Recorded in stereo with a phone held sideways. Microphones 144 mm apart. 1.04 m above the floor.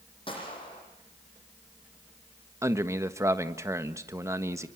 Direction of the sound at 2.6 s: 20° right (ahead or behind).